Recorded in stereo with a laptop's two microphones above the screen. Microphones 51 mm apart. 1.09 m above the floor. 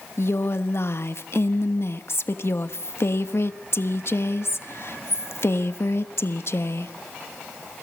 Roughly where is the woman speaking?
Left.